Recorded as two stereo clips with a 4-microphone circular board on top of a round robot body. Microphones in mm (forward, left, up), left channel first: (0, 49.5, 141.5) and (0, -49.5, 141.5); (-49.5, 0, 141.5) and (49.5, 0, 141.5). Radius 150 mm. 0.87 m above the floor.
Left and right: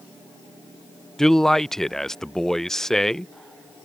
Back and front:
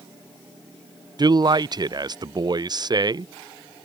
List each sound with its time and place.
1.2 s a man speaking: 5° left